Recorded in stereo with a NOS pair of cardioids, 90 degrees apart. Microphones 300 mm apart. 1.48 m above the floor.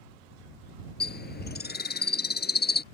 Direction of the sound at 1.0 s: 35° left.